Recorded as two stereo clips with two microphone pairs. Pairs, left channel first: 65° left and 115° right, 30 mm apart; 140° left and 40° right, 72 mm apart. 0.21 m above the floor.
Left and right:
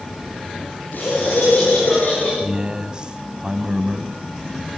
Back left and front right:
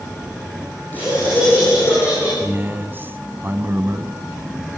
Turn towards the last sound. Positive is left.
turn(degrees=-75)